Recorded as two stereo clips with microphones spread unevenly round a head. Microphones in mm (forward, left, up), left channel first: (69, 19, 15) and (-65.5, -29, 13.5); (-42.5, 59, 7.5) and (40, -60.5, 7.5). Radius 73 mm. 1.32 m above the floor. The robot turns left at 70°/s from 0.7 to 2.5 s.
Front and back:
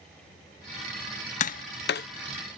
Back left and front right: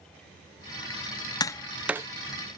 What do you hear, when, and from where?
1.4 s tapping: 60° left; by 2.1 s 15° left